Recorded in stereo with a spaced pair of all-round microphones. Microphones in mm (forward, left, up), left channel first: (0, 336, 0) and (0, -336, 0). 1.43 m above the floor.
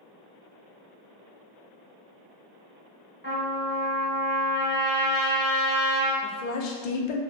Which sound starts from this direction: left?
A woman speaking, at 6.2 s.